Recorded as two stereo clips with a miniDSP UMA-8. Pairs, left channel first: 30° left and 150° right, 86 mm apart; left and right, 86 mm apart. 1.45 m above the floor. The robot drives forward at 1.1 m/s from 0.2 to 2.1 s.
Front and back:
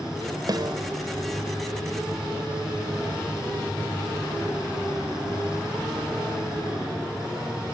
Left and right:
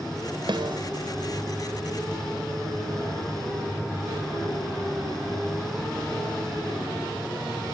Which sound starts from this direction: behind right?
A snare drum, at 0.5 s.